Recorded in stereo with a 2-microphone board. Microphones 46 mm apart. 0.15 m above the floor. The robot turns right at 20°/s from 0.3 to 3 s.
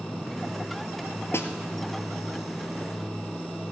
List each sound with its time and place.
1.3 s a snare drum: 70° left (ahead or behind), 1.2 m